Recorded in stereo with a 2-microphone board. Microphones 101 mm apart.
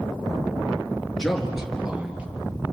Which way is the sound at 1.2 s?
Centre (ahead or behind).